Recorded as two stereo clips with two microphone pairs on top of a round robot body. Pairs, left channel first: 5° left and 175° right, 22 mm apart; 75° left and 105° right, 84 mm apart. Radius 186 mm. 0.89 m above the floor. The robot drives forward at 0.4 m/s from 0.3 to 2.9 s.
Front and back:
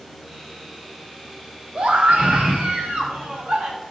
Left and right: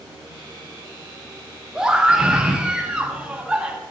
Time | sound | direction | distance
1.8 | a scream | 170° left | 2 m